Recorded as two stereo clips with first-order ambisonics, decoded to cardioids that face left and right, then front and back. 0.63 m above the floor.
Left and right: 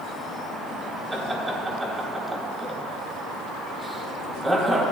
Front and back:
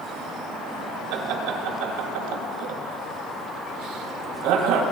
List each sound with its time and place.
1.1 s laughter: 170° right, 3.5 m